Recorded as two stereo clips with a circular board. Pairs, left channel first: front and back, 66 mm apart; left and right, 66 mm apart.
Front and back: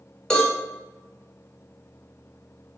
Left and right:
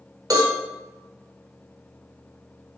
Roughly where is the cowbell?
Right.